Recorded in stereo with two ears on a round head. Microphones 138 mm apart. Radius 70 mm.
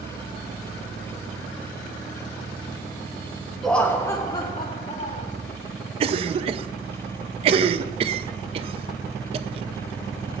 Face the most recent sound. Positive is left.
turn(degrees=-35)  # may be behind; listen again after turning